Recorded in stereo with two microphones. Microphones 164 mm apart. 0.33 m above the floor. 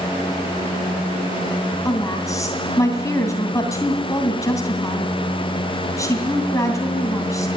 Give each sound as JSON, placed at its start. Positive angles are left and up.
{"t": 1.9, "sound": "a woman speaking", "side_deg": 20, "distance_m": 2.5}